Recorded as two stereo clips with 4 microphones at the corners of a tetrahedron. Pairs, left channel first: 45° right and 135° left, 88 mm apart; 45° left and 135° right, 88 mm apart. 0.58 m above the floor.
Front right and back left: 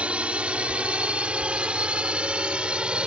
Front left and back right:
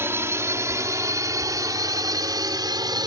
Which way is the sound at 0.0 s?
165° right.